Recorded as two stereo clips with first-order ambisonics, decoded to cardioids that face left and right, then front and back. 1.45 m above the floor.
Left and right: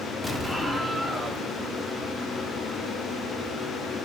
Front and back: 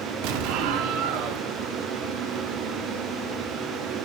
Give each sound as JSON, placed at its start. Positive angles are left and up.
{"t": 0.2, "sound": "an explosion", "azimuth_deg": 180, "distance_m": 0.5}